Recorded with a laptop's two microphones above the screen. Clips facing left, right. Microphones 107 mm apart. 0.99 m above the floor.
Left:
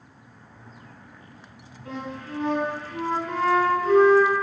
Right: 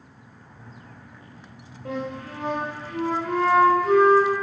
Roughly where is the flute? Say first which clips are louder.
Right 3 dB; right.